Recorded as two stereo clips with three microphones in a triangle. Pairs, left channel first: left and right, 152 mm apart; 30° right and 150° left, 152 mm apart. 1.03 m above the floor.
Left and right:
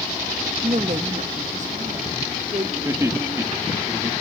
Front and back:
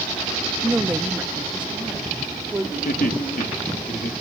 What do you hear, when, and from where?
0.6 s a woman speaking: 130° right, 0.6 m; by 2.8 s 125° right, 2 m
2.9 s laughter: 20° right, 1.8 m